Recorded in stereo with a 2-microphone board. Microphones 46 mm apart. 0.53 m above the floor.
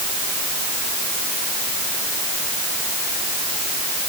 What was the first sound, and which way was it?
Only background noise.